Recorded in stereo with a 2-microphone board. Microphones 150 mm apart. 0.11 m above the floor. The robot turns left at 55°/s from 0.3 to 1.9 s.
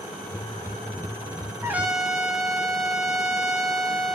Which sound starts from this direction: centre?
A trumpet, at 1.6 s.